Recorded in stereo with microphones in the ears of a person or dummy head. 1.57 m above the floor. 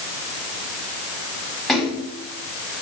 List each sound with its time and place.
1.7 s a splash: 5° right (ahead or behind), 7 m